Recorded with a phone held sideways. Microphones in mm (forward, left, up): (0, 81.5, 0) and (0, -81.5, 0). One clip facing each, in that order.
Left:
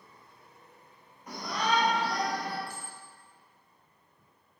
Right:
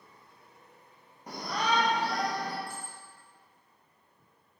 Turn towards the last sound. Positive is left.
turn(degrees=-50)  # may be behind; listen again after turning